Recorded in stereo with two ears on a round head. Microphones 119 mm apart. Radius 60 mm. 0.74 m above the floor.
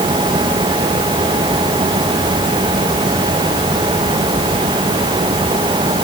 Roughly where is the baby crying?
No baby crying in this recording.